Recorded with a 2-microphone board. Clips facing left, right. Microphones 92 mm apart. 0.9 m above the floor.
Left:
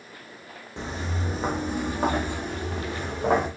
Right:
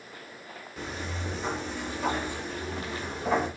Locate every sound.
0.8 s footsteps: 30° left (ahead or behind), 2.0 m; by 3.5 s 75° left (ahead or behind), 3.5 m